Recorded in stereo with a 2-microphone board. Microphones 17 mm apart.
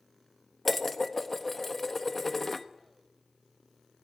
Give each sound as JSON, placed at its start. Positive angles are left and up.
{"t": 0.7, "sound": "dishes clattering", "side_deg": 10, "distance_m": 1.0}